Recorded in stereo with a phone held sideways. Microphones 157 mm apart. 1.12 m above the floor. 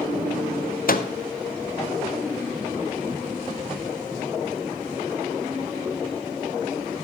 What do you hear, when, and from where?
0.9 s a microwave: 65° left (ahead or behind), 0.5 m